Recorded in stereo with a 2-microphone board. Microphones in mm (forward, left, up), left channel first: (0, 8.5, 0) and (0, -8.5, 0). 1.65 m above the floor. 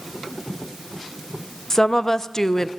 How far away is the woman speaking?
About 0.9 m.